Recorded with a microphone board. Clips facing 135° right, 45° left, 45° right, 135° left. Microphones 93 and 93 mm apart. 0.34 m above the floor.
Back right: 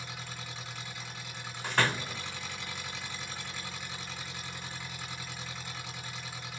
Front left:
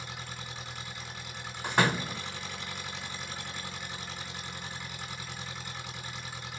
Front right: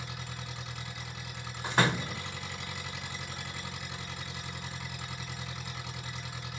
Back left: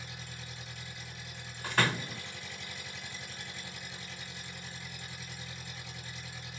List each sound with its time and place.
0.0 s an engine running: 40° right, 2 m
1.6 s a door slam: 5° right, 0.6 m